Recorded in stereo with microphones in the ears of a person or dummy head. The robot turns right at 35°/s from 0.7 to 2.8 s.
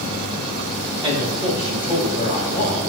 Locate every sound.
1.0 s a man speaking: 10° right, 1.3 m; by 2.9 s 50° left, 1.3 m